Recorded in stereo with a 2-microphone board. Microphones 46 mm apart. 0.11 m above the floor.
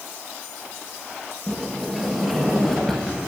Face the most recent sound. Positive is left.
turn(degrees=0)  # may be behind; listen again after turning